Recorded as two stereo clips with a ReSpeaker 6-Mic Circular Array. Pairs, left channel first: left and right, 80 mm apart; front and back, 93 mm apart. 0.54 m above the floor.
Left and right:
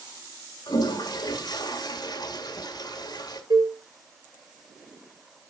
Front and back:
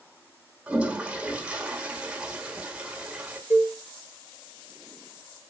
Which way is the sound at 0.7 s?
105° left.